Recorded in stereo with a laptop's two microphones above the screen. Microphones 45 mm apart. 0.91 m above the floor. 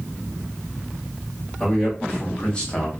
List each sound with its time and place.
1.6 s a man speaking: 20° left (ahead or behind), 1.3 m